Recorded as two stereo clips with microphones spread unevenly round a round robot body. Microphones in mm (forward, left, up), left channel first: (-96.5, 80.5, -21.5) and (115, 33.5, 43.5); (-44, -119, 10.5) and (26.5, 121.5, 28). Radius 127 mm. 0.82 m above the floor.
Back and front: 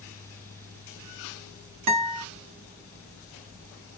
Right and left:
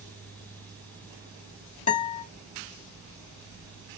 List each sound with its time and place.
1.9 s a guitar: 40° right, 0.6 m